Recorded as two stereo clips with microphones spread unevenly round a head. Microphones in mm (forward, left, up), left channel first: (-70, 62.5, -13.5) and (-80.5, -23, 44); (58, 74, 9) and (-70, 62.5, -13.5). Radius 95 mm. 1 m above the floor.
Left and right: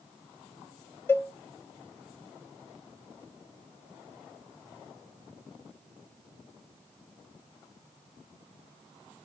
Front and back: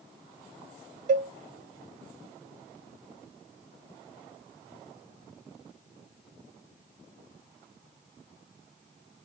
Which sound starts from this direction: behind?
A cowbell, at 1.1 s.